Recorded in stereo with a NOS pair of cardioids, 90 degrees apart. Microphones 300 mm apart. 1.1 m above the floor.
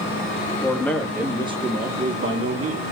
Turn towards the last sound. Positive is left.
turn(degrees=-55)